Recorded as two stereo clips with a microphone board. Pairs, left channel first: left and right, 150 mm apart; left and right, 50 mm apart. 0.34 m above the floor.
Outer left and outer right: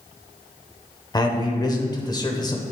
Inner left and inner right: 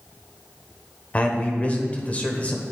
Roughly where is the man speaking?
Left.